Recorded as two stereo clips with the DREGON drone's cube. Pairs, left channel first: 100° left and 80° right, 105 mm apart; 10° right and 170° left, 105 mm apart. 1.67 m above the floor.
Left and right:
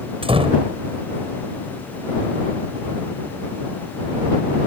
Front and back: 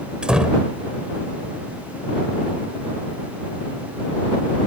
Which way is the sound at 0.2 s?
110° right.